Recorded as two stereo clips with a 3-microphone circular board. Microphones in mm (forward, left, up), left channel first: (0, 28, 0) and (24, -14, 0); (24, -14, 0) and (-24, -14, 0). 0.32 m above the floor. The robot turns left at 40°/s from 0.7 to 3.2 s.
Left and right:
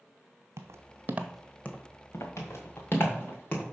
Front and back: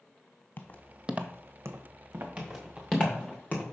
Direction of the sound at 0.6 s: 45° right.